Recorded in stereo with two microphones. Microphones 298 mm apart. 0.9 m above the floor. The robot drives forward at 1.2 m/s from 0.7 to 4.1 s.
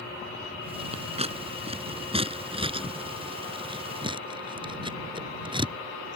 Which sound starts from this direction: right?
Scissors, at 0.9 s.